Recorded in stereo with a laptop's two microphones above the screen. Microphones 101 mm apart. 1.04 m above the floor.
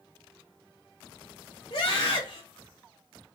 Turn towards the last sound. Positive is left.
turn(degrees=55)  # may be behind; listen again after turning